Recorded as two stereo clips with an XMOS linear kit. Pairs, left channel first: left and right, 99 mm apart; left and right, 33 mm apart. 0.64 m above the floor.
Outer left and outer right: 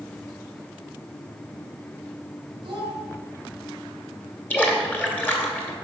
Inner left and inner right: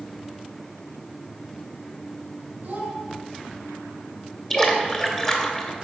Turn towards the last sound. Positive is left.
turn(degrees=20)  # may be behind; listen again after turning